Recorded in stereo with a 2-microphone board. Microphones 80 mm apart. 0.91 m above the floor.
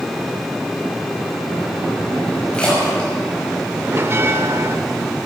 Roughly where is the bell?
Right.